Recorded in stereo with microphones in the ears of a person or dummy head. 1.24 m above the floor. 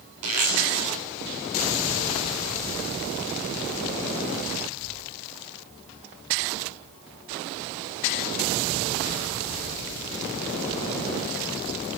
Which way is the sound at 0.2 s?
90° right.